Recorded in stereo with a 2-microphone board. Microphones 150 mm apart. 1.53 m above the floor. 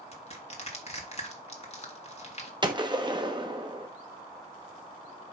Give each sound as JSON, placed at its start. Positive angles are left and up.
{"t": 0.1, "sound": "crushing", "side_deg": 45, "distance_m": 1.5}
{"t": 2.6, "sound": "a gunshot", "side_deg": -30, "distance_m": 1.0}